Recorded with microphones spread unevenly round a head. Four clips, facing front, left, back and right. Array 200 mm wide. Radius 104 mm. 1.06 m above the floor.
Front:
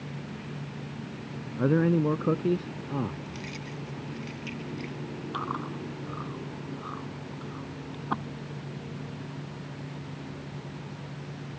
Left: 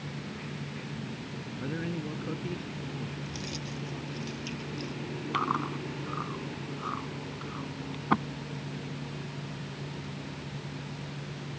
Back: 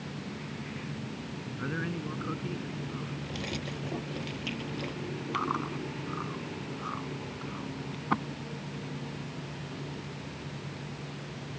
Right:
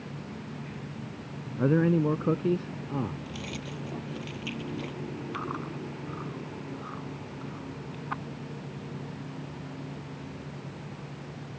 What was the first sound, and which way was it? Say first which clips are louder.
A man speaking: right 12 dB, front 13 dB; 50° right.